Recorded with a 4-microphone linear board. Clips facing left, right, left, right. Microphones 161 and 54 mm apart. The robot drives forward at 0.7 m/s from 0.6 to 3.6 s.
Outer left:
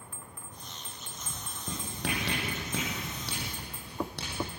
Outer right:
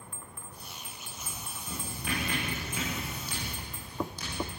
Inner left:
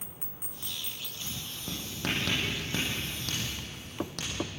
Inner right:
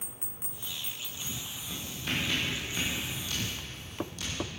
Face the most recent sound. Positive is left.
turn(degrees=70)  # may be behind; listen again after turning